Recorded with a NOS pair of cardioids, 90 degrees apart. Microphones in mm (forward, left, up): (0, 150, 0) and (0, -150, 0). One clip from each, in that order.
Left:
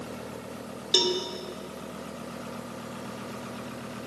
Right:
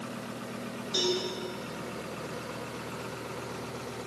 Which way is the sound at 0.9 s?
65° left.